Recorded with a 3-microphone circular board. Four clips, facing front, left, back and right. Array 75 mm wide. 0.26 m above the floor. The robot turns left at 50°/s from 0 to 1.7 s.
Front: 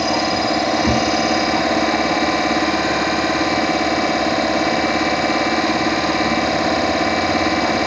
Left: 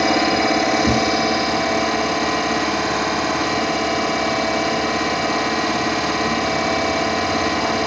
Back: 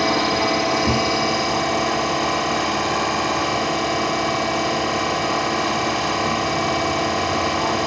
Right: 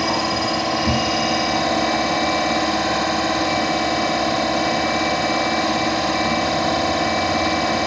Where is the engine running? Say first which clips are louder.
Left 4 dB, front 1 dB; 95° left, 1.1 m; by 7.9 s 10° left, 1.1 m.